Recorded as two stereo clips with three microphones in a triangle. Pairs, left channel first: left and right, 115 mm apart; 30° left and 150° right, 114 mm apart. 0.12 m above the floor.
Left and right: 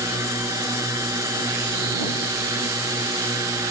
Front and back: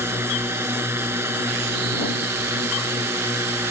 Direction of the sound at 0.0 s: 105° right.